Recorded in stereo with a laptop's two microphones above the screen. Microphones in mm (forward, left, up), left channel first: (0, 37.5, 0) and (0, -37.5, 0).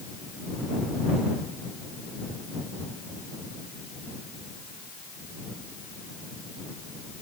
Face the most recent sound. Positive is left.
No sound to turn to.